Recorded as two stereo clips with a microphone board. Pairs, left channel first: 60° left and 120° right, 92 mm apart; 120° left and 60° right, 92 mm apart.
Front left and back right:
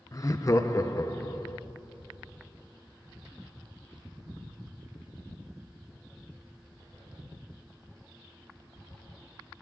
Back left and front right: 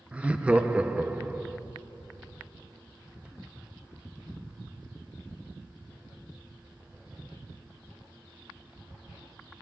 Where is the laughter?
15° left, 0.6 m.